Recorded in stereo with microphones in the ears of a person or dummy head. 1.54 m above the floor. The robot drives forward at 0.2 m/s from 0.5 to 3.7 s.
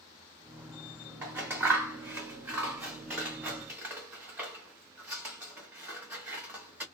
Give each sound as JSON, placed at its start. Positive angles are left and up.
{"t": 1.2, "sound": "scissors", "side_deg": -10, "distance_m": 0.8}